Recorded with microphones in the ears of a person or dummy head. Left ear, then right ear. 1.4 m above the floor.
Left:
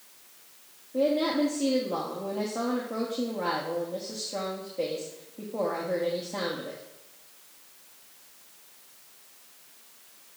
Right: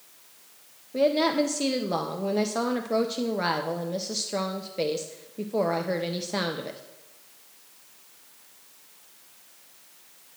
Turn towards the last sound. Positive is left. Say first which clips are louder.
# right 3 dB
turn(degrees=-65)  # may be behind; listen again after turning